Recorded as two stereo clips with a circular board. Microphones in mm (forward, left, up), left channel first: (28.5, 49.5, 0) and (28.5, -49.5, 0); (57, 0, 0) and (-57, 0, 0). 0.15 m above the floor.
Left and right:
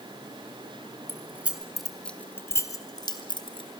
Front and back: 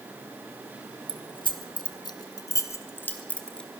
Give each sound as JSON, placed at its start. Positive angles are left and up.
{"t": 1.1, "sound": "keys jangling", "azimuth_deg": -30, "distance_m": 1.6}